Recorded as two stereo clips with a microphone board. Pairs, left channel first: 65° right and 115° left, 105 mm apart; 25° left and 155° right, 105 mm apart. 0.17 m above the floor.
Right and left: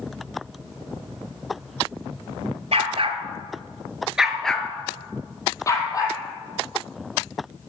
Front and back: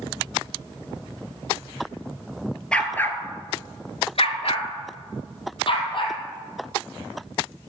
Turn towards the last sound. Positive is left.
turn(degrees=-15)